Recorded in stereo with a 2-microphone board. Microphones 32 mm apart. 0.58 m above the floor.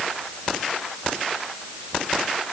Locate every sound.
Only background noise.